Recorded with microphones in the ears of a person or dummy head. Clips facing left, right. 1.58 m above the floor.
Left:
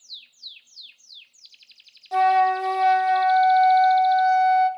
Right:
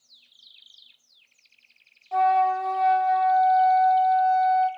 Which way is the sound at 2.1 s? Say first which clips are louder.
Left 2 dB; 40° left (ahead or behind).